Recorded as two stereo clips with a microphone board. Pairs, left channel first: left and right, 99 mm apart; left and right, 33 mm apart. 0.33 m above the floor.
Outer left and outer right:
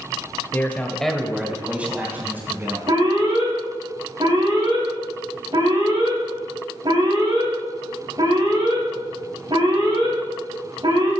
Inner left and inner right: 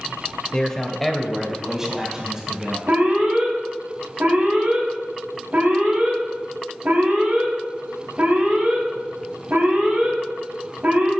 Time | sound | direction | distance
0.5 | a man speaking | 25° left (ahead or behind) | 1.2 m
2.9 | an alarm | 55° right (ahead or behind) | 3.5 m